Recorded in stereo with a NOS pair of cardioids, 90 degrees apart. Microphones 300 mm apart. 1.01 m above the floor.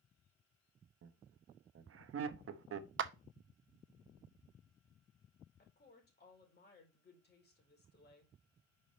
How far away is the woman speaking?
About 4.5 m.